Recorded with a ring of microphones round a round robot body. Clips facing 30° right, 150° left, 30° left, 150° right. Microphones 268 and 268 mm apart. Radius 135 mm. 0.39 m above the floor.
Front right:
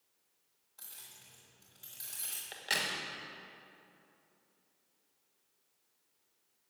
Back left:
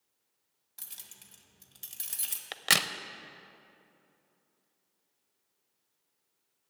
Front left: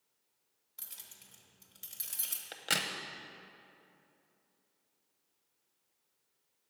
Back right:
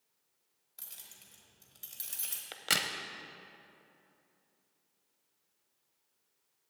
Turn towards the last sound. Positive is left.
turn(degrees=125)